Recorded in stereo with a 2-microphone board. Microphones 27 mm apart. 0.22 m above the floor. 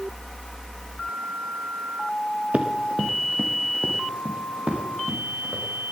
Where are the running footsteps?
55° right (ahead or behind), 1.7 m; by 5.6 s 40° right (ahead or behind), 6 m.